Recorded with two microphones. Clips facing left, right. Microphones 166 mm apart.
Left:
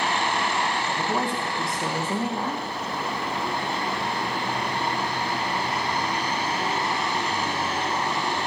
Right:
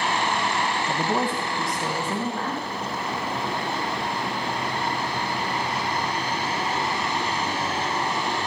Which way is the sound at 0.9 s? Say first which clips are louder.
Right 2 dB; 25° right (ahead or behind).